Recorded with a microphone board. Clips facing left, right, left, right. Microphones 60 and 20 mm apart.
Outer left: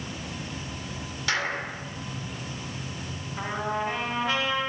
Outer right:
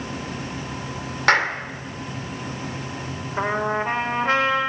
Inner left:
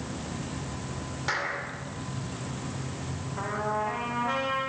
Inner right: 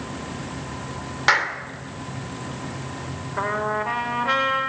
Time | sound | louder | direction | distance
1.3 | a clap | outer right 9 dB, inner right 11 dB | 60° right (ahead or behind) | 2.5 m
3.4 | a trumpet | outer right 6 dB, inner right 6 dB | 45° right (ahead or behind) | 5 m